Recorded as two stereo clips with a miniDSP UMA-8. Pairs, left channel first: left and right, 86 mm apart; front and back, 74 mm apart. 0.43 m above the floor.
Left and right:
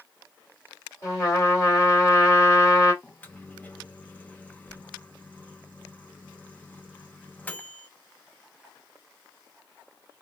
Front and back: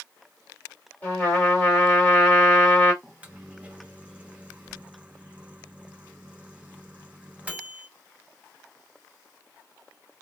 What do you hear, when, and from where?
1.0 s a trumpet: 55° left, 1.7 m
3.0 s a microwave: 130° left, 0.6 m